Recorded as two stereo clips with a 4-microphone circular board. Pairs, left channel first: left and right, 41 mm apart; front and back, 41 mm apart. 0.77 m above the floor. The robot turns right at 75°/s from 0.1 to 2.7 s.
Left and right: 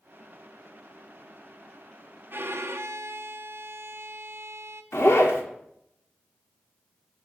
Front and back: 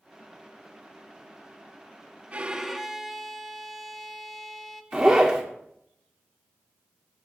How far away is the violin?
About 0.6 m.